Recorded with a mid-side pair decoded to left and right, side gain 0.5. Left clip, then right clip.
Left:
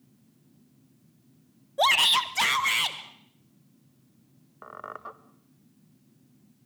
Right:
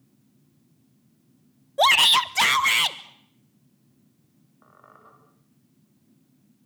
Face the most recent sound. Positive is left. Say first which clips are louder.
# left 12 dB
turn(degrees=65)